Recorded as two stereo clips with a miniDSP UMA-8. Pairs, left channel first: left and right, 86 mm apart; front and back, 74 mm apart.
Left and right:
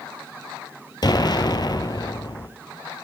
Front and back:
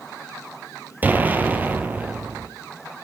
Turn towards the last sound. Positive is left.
turn(degrees=120)